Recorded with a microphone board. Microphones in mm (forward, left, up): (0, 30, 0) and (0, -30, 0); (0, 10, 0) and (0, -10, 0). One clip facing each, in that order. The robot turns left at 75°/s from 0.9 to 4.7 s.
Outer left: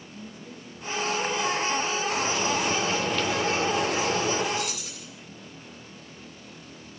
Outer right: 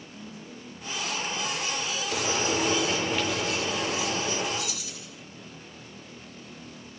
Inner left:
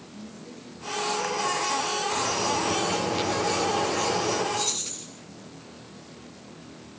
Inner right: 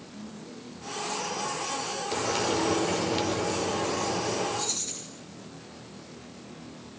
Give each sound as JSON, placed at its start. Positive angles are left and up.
{"t": 0.1, "sound": "a woman speaking", "azimuth_deg": 120, "distance_m": 4.0}
{"t": 2.1, "sound": "frying", "azimuth_deg": -90, "distance_m": 5.5}
{"t": 4.5, "sound": "keys jangling", "side_deg": 65, "distance_m": 9.5}